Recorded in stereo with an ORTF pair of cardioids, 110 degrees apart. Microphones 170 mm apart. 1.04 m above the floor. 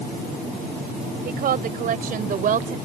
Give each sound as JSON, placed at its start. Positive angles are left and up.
{"t": 1.2, "sound": "a woman speaking", "azimuth_deg": -55}